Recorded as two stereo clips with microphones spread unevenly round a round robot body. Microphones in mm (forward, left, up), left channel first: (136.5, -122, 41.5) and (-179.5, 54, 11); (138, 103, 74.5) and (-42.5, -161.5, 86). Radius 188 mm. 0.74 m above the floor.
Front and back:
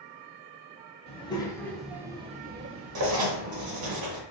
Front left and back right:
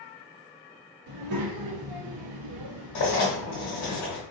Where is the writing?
100° left, 0.7 m.